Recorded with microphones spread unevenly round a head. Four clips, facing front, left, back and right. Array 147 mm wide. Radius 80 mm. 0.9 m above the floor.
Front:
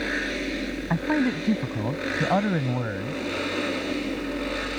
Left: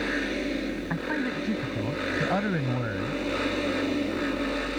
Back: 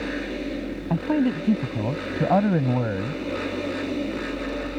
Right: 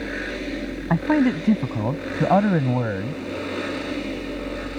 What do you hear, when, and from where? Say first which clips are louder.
0.9 s a man speaking: right 14 dB, back 2 dB; 110° right; by 3.2 s 130° right